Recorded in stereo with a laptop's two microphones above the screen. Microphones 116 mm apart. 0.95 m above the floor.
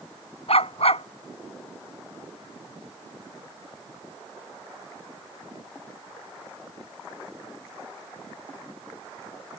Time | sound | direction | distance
0.5 | a dog barking | 65° left (ahead or behind) | ?